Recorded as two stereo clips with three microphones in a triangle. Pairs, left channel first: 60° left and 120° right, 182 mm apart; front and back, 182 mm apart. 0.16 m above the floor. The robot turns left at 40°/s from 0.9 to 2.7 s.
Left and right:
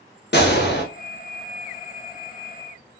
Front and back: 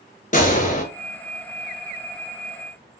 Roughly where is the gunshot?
Ahead left.